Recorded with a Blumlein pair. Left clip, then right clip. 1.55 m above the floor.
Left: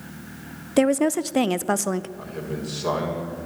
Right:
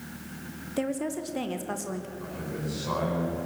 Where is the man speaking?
60° left, 5 m.